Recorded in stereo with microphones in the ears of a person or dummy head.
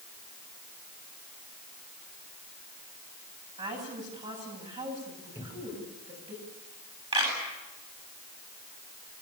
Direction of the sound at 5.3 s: 10° right (ahead or behind).